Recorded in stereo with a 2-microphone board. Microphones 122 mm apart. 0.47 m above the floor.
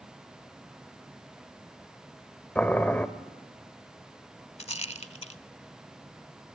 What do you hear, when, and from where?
2.5 s boiling: 10° left (ahead or behind), 1.0 m
4.6 s a rattle: 55° left (ahead or behind), 0.6 m